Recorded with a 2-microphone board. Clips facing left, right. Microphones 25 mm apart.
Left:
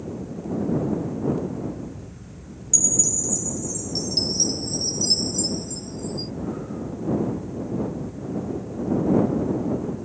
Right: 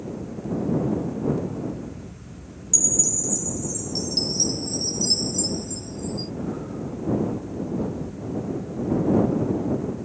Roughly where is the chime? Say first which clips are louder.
Even; centre.